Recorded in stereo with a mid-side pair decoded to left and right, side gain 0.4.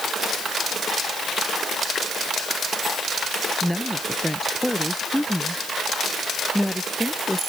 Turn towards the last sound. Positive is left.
turn(degrees=0)